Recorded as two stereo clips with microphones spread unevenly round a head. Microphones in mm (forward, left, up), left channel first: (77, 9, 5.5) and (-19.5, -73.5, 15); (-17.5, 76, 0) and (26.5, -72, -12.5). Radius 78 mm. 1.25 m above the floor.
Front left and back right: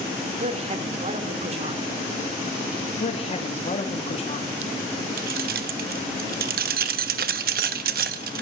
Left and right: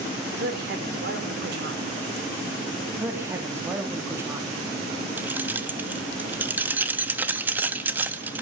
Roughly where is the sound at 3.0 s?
Ahead.